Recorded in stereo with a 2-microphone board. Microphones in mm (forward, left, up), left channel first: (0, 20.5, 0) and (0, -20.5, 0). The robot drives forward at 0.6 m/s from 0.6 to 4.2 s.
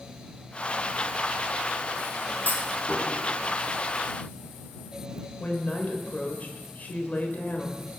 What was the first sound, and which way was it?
A clunk, 45° left (ahead or behind).